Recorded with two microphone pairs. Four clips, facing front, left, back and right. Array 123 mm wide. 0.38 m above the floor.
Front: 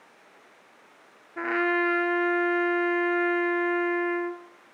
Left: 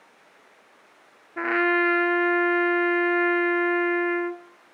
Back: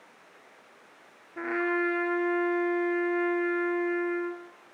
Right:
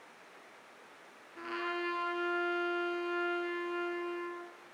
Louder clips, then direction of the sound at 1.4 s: Left 15 dB, front 3 dB; 70° left.